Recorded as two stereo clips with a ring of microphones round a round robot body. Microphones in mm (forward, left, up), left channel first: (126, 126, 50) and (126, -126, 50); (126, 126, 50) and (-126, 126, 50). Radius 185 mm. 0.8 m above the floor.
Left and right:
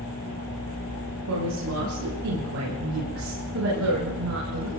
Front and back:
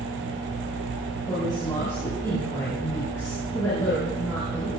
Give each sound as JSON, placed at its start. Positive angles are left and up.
{"t": 1.3, "sound": "a woman speaking", "azimuth_deg": -80, "distance_m": 9.5}